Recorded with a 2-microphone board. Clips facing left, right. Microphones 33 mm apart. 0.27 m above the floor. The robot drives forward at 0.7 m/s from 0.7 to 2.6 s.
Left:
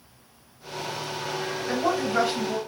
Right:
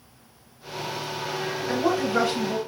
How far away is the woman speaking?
About 1.3 m.